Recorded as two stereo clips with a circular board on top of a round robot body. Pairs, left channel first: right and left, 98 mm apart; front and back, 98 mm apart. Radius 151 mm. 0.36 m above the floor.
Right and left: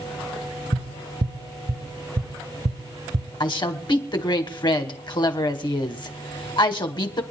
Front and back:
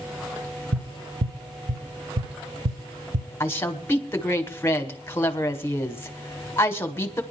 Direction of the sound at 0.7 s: 140° left.